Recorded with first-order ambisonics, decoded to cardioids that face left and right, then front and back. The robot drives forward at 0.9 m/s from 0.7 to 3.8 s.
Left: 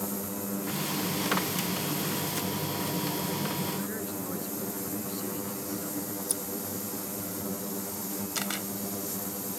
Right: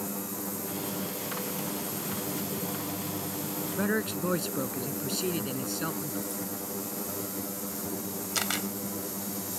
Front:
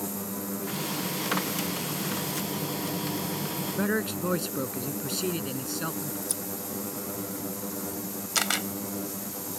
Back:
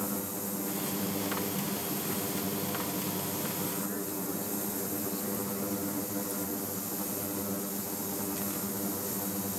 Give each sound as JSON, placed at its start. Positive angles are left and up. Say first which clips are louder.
{"t": 3.8, "sound": "a man speaking", "louder": "right 6 dB, front 8 dB", "azimuth_deg": -35}
{"t": 6.3, "sound": "scissors", "louder": "left 2 dB, front 1 dB", "azimuth_deg": 45}
{"t": 8.3, "sound": "a camera shutter", "louder": "right 4 dB, front 10 dB", "azimuth_deg": -10}